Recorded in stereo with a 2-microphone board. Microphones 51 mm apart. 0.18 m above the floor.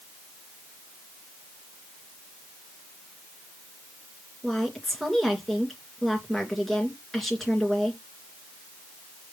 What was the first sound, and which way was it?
A woman speaking, centre (ahead or behind).